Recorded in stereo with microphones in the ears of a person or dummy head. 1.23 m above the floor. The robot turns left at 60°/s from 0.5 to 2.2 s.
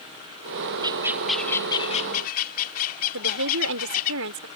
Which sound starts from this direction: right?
A woman speaking, at 3.1 s.